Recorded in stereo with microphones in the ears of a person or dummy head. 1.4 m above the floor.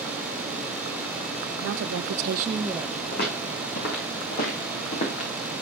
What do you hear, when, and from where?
1.6 s a woman speaking: 60° right (ahead or behind), 1.3 m; by 3.0 s centre (ahead or behind), 1.3 m
3.1 s footsteps: 60° left (ahead or behind), 3.5 m; by 5.3 s 45° left (ahead or behind), 3 m